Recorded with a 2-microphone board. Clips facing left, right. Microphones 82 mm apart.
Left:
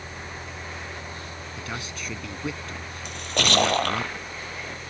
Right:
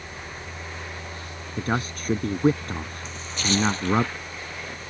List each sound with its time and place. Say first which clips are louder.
1.6 s a man speaking: right 10 dB; 45° right (ahead or behind)
3.0 s a splash: left 3 dB; 65° left (ahead or behind)